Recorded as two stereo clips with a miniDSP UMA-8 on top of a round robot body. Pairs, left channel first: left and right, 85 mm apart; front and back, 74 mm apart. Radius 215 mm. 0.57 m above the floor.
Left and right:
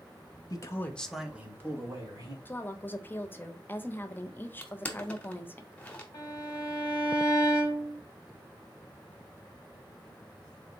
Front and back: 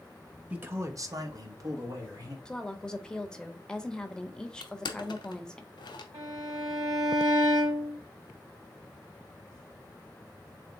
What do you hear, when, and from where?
0.5 s a man speaking: 120° left, 1.2 m; by 2.4 s 140° right, 2.5 m
2.5 s a woman speaking: 65° left, 0.9 m
4.6 s crushing: 15° left, 0.8 m
6.1 s a violin: 145° left, 0.8 m